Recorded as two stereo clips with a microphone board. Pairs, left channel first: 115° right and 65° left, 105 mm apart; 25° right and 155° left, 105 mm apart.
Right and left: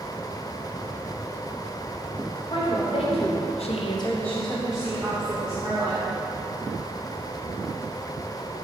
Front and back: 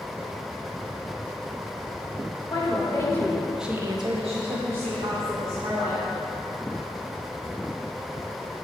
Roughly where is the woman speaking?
Right.